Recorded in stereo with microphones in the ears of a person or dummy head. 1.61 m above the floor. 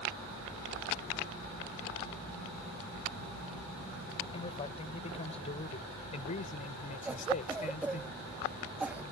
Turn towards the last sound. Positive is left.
turn(degrees=-5)  # may be behind; listen again after turning